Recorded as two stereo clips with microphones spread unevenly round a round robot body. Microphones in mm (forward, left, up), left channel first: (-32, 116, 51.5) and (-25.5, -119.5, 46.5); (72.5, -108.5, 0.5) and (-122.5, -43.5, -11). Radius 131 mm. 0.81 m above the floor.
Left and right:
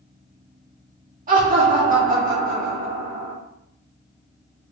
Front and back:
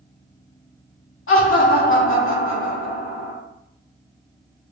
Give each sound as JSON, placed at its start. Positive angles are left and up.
{"t": 1.3, "sound": "laughter", "azimuth_deg": -30, "distance_m": 1.9}